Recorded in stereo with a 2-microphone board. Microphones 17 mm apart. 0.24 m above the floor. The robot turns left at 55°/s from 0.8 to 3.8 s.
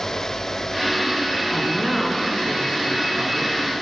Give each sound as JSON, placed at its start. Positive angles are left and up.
{"t": 1.5, "sound": "a woman speaking", "azimuth_deg": 15, "distance_m": 2.0}